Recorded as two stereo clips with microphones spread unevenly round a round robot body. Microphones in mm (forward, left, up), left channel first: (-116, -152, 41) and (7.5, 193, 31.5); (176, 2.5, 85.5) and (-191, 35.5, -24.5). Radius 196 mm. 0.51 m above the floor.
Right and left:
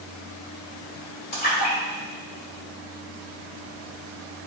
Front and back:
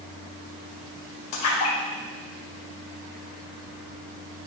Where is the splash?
45° right, 2.5 m.